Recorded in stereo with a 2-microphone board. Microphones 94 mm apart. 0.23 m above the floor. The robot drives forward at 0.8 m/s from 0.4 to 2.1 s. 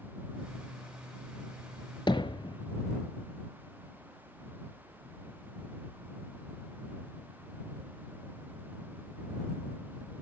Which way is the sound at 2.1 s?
60° left (ahead or behind).